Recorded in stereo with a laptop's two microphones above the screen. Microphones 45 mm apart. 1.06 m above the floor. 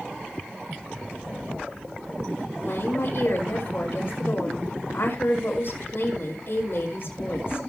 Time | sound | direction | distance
2.6 | a woman speaking | 50° left (ahead or behind) | 4.5 m